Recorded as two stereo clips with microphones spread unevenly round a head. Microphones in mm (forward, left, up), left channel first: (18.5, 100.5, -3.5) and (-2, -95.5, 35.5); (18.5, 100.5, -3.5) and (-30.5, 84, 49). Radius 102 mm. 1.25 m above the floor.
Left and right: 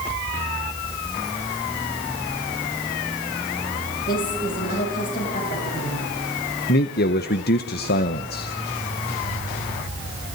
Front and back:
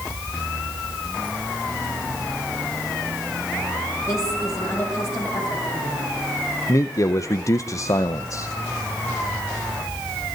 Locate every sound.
4.1 s a woman speaking: 35° left, 8 m
6.7 s a man speaking: 40° left, 0.8 m